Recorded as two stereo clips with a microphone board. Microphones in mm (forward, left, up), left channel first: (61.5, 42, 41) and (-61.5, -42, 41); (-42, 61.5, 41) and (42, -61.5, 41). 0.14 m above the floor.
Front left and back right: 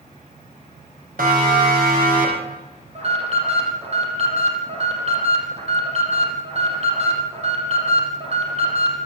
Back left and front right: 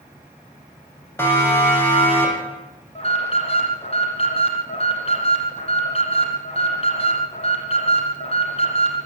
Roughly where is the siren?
Behind.